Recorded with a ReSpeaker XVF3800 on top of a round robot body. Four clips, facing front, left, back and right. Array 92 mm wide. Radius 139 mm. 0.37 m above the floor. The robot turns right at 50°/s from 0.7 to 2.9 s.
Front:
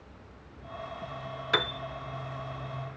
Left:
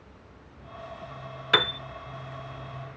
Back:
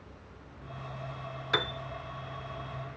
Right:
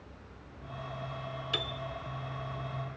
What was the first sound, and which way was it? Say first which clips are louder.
A piano: left 15 dB, front 2 dB; 90° left.